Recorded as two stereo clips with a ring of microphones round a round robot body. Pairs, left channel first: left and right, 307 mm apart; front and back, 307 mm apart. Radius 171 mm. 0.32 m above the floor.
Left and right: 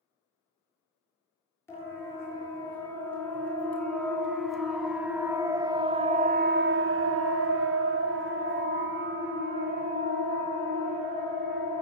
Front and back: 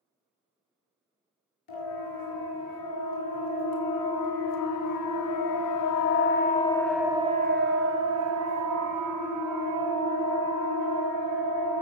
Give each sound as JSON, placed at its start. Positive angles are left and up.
{"t": 1.7, "sound": "a siren", "azimuth_deg": 10, "distance_m": 5.0}